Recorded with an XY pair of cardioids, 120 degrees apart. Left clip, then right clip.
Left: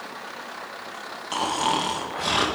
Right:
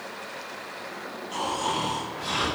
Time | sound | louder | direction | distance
1.3 | snoring | left 4 dB | 55° left | 2 m